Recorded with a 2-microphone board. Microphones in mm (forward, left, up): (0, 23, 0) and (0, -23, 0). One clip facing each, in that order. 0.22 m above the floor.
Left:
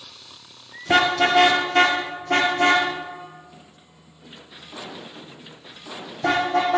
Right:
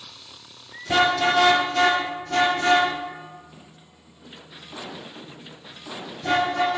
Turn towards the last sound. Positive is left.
turn(degrees=85)